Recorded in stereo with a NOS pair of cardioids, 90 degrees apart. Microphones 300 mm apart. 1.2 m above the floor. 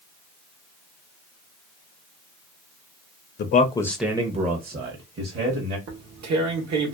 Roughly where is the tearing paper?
Ahead right.